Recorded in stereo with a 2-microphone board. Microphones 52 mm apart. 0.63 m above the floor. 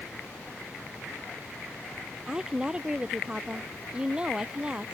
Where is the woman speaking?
15° right (ahead or behind); by 5.0 s 20° right (ahead or behind).